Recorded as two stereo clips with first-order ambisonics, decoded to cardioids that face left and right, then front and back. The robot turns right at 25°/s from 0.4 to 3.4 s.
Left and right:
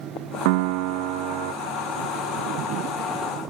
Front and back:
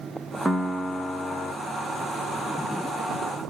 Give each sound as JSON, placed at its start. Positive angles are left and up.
{"t": 0.5, "sound": "a piano", "azimuth_deg": -100, "distance_m": 0.8}